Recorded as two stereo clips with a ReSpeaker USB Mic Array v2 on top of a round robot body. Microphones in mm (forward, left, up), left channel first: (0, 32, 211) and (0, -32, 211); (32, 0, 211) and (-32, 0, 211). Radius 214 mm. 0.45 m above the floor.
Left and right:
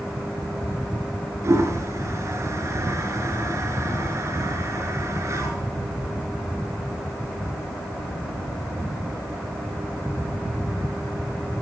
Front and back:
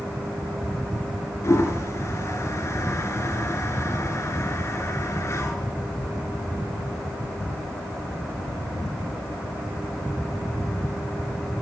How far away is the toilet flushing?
About 4 m.